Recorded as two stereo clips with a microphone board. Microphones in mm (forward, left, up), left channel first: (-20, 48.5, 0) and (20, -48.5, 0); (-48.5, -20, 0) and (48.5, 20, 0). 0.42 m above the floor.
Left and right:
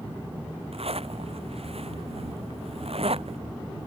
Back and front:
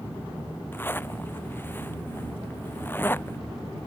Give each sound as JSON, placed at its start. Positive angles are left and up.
{"t": 0.7, "sound": "a zipper", "azimuth_deg": -90}